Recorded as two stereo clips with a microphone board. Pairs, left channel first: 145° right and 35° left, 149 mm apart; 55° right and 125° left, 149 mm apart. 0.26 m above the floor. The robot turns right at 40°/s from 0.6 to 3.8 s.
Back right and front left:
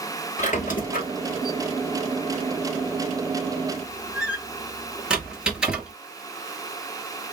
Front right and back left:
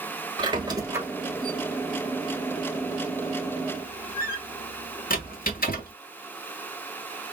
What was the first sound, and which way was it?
A squeak, straight behind.